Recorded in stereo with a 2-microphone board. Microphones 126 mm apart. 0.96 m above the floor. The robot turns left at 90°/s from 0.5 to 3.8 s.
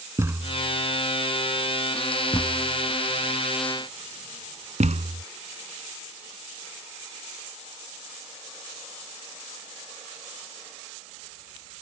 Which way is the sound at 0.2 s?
20° right (ahead or behind).